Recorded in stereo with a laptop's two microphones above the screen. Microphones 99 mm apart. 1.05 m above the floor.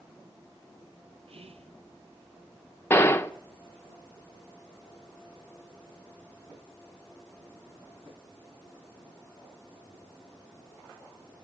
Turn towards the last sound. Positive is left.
turn(degrees=25)  # may be behind; listen again after turning